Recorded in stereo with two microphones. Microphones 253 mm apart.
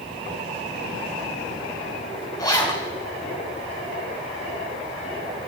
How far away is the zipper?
About 5 m.